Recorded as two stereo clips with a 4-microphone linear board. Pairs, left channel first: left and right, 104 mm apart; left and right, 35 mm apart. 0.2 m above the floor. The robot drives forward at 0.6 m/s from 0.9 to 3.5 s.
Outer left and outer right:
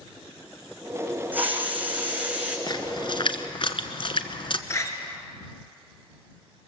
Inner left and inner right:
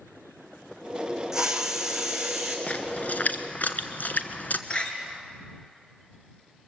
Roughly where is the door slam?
Left.